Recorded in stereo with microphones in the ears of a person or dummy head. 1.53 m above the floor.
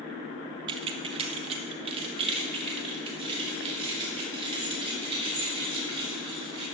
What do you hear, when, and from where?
0.7 s keys jangling: 25° right (ahead or behind), 0.6 m; by 6.6 s 30° right (ahead or behind), 4 m